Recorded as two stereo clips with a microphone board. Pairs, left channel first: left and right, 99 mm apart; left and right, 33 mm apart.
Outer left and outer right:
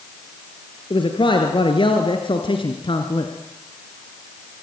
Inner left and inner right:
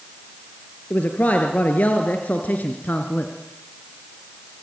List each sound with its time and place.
0.9 s a man speaking: 55° left (ahead or behind), 4 m